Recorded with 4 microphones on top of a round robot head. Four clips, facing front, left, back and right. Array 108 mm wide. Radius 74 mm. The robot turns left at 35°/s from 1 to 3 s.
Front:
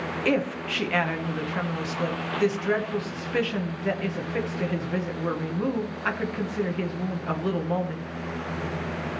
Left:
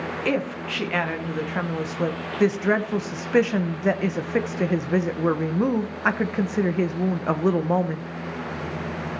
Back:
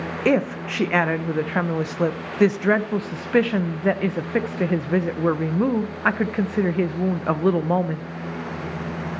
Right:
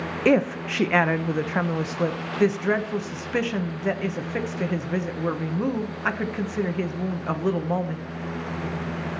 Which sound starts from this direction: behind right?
A woman speaking, at 0.2 s.